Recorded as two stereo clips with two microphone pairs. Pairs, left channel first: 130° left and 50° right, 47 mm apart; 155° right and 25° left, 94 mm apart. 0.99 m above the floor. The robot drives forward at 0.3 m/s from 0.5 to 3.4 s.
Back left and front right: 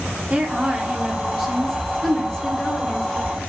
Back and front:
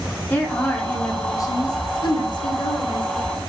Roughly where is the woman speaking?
Right.